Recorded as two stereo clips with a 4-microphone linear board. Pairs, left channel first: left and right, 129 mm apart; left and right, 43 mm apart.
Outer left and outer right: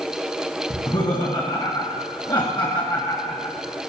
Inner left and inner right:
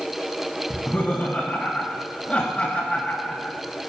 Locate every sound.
0.7 s laughter: 40° left (ahead or behind), 1.6 m